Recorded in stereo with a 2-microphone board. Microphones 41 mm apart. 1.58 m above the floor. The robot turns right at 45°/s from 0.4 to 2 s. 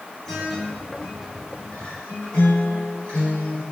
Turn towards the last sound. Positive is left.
turn(degrees=90)